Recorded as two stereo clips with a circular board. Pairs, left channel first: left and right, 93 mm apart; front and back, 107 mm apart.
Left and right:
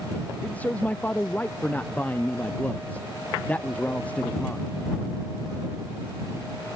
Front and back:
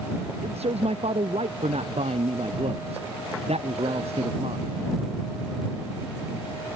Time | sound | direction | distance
0.4 | a man speaking | 165° left | ?